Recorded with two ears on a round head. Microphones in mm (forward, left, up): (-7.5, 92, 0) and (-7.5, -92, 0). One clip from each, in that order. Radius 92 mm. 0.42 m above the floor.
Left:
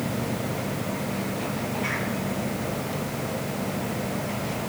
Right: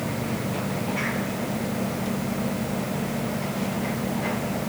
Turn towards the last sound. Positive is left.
No sound to turn to.